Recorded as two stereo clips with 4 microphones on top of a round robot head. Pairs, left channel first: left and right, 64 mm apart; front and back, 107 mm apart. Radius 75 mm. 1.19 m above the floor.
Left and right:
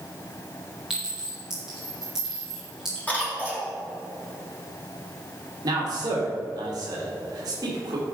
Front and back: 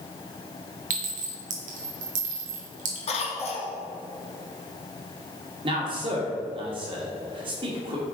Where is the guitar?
No guitar in this recording.